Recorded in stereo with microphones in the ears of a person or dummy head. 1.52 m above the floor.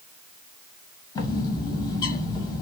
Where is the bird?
20° left (ahead or behind), 0.9 m.